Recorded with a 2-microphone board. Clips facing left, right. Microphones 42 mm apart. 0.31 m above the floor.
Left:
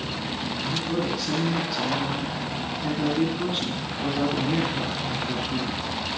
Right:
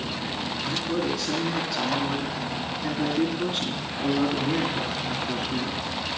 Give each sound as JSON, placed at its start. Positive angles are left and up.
{"t": 0.6, "sound": "a man speaking", "side_deg": 5, "distance_m": 2.5}